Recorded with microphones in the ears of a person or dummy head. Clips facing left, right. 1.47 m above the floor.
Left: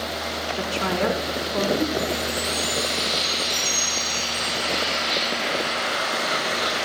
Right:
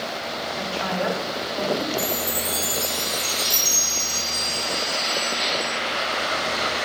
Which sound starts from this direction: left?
A woman speaking, at 0.6 s.